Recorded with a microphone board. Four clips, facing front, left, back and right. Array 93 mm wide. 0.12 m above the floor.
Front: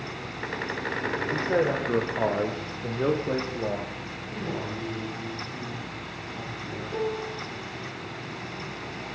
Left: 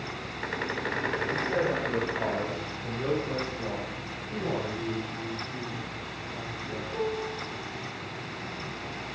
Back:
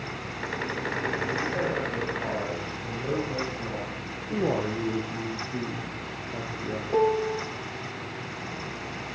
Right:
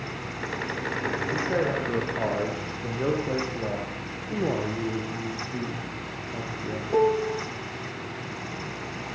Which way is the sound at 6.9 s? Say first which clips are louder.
Right 10 dB, back 8 dB; 125° right.